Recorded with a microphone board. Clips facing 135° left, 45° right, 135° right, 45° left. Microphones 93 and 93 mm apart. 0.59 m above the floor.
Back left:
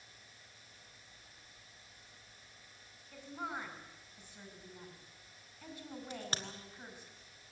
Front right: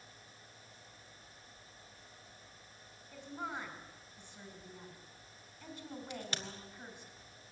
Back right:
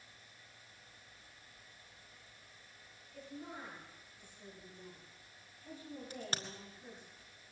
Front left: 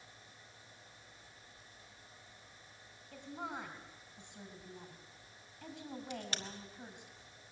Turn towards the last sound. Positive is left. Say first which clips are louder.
# back left 1 dB, back right 1 dB
turn(degrees=180)